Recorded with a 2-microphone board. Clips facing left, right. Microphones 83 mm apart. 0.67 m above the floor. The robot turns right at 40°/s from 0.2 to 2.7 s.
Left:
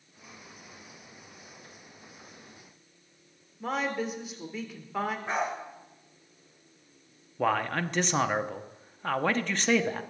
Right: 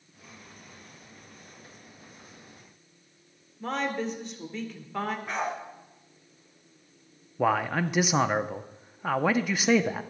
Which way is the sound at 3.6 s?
5° left (ahead or behind).